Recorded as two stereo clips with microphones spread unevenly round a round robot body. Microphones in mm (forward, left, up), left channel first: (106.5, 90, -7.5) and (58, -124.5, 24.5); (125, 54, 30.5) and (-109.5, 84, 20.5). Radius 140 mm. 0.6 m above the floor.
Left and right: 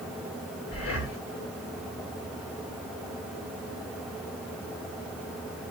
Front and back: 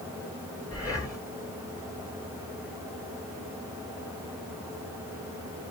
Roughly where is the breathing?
Left.